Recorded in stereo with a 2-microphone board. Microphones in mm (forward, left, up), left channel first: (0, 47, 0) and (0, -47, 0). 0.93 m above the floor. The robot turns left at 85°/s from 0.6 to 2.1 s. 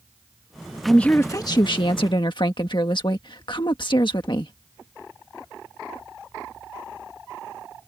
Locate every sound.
0.8 s a woman speaking: straight behind; by 4.5 s 75° left